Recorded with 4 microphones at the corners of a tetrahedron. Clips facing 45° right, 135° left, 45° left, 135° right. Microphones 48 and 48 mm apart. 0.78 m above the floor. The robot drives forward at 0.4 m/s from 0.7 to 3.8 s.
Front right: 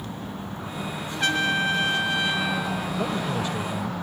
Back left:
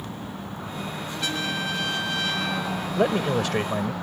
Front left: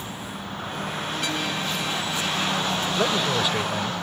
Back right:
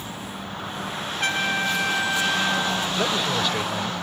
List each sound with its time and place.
1.2 s a trumpet: 90° right; by 2.9 s 130° right
3.0 s a man speaking: 125° left; by 3.9 s 130° left